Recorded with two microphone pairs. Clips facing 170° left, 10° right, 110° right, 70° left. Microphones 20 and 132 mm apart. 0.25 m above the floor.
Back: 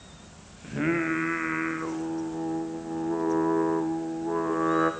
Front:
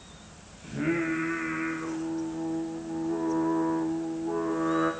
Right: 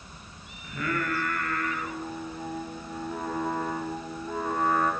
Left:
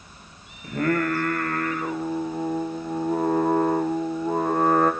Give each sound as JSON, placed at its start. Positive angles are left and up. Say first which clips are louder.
{"t": 0.6, "sound": "singing", "louder": "back 2 dB, left 8 dB", "azimuth_deg": 110, "distance_m": 3.5}